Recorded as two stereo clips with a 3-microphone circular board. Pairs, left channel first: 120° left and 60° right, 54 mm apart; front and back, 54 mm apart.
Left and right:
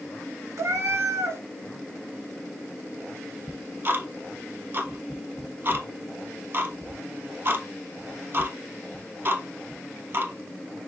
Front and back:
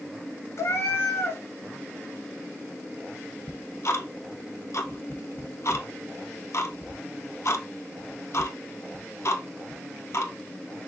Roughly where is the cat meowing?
Ahead right.